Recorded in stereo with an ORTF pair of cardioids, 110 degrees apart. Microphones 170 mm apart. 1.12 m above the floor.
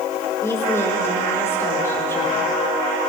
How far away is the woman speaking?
About 4.5 m.